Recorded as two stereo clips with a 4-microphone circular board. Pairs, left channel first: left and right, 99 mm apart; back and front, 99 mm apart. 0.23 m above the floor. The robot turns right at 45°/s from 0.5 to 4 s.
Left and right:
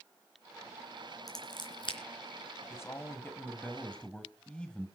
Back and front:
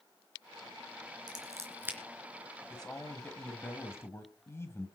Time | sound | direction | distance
1.3 | scissors | 40° left | 3.5 m
2.7 | a man speaking | 100° left | 1.5 m